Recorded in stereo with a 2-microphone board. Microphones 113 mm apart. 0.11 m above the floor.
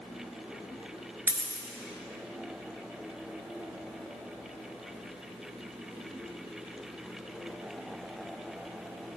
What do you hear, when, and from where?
1.3 s a dropped coin: 20° right (ahead or behind), 0.6 m